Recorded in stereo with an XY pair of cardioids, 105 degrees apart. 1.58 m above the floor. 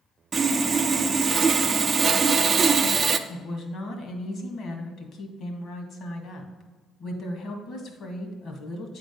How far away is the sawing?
About 0.5 m.